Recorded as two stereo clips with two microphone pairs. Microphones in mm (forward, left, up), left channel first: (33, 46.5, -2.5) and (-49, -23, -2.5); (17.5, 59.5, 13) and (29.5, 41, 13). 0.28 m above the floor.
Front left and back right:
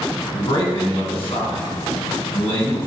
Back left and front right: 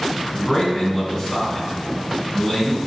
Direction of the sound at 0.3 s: 60° left.